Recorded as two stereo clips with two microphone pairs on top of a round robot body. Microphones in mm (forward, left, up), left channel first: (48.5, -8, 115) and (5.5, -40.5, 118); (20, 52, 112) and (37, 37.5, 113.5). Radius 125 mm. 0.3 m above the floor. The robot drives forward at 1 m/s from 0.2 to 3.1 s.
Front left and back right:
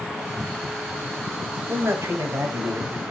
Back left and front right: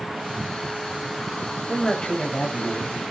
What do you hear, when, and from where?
1.7 s a man speaking: 170° right, 1.7 m; by 3.0 s 175° right, 3 m